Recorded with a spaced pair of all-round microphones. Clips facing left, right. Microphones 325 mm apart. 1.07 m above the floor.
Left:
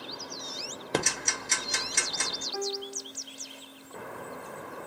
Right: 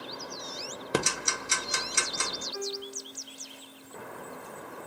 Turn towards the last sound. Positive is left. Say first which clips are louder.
# left 4 dB
turn(degrees=75)  # may be behind; listen again after turning